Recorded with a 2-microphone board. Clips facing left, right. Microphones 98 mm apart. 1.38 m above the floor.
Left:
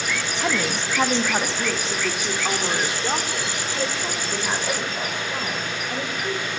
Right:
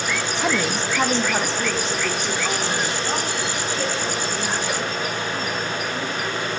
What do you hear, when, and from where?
0.4 s a woman speaking: 10° right (ahead or behind), 1.6 m; by 6.5 s 20° left (ahead or behind), 7 m